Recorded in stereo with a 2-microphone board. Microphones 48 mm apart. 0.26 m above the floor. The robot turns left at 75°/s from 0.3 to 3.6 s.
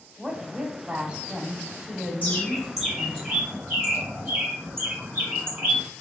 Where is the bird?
40° left, 2.0 m; by 5.8 s 65° right, 2.0 m.